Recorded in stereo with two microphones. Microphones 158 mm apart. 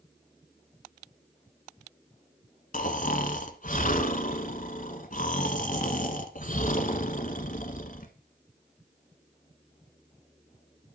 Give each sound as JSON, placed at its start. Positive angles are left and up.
{"t": 2.7, "sound": "snoring", "side_deg": 60, "distance_m": 1.3}